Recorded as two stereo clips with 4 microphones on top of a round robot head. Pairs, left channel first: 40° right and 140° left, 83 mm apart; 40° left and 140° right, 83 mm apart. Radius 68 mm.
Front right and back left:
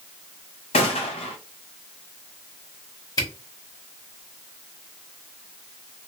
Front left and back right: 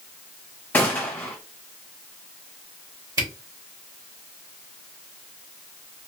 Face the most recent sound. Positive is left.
turn(degrees=-90)